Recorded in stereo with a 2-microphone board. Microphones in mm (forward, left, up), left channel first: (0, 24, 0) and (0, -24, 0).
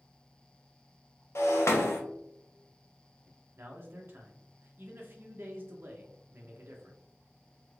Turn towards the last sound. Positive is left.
turn(degrees=-50)  # may be behind; listen again after turning